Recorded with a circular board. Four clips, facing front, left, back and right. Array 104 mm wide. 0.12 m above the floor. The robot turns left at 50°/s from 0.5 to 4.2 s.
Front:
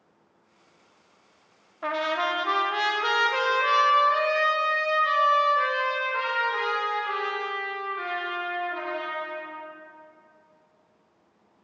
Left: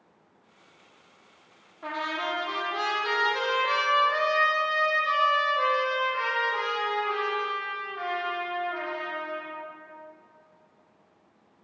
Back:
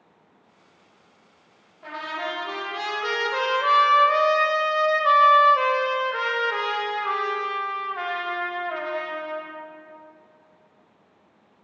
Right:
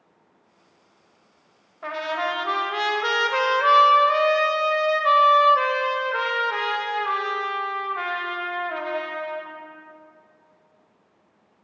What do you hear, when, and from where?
1.8 s a trumpet: 10° right, 0.8 m; by 9.6 s 130° right, 0.8 m